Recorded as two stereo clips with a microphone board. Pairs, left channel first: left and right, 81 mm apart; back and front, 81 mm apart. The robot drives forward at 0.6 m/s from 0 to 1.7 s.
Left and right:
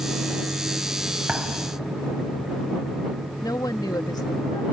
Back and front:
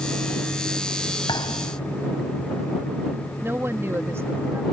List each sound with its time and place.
1.3 s a thud: 165° right
3.4 s a woman speaking: 60° left